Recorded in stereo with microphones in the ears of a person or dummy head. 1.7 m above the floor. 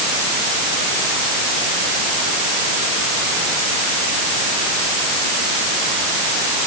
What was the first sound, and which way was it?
Only background noise.